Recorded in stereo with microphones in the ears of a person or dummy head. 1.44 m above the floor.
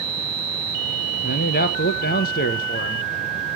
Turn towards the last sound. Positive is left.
turn(degrees=50)  # may be behind; listen again after turning